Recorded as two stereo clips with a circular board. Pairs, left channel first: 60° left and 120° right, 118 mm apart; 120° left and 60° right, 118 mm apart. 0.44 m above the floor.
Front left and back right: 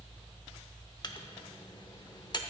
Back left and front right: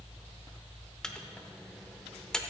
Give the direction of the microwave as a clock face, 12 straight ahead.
11 o'clock.